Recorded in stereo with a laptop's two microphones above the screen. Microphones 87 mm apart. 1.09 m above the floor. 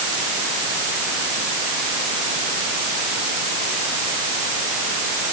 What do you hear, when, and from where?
Only background noise.